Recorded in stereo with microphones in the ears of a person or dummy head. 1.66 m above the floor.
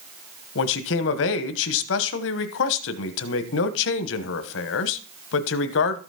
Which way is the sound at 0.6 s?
65° left (ahead or behind).